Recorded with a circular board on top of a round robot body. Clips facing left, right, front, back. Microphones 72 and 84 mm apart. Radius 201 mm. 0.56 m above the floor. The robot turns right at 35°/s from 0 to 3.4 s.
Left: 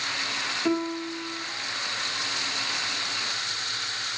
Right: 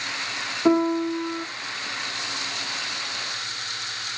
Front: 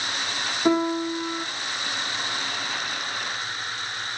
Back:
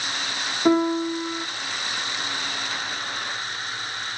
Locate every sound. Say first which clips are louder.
0.7 s a piano: right 8 dB, back 2 dB; 95° right, 0.8 m; by 1.5 s 65° right, 0.8 m